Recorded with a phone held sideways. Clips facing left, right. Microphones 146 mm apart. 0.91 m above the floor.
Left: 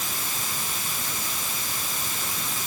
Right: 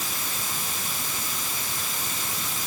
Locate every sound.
Only background noise.